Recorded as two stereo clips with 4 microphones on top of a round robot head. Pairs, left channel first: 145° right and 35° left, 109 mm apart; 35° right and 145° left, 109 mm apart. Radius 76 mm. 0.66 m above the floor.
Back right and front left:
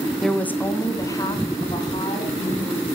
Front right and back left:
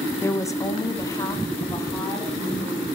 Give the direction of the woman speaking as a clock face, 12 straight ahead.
2 o'clock.